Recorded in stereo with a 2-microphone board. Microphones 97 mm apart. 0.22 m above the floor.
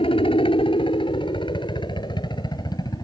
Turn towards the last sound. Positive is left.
turn(degrees=40)  # may be behind; listen again after turning